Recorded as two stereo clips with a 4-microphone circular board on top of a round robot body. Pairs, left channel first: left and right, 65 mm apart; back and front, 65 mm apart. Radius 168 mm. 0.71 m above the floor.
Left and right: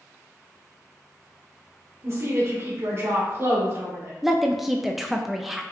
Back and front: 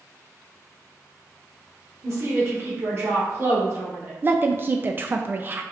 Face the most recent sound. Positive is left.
turn(degrees=-5)